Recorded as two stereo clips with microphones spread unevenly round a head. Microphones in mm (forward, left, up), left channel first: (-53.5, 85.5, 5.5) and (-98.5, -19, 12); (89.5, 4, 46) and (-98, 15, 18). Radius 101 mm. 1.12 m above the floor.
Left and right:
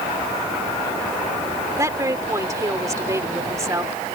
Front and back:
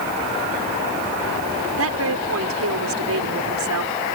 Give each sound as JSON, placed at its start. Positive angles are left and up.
{"t": 1.8, "sound": "a woman speaking", "azimuth_deg": -175}